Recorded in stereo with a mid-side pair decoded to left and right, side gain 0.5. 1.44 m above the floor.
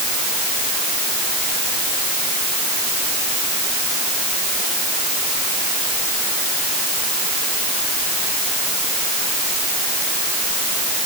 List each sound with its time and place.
Only background noise.